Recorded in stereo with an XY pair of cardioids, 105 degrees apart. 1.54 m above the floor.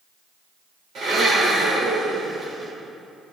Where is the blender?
60° right, 5 m.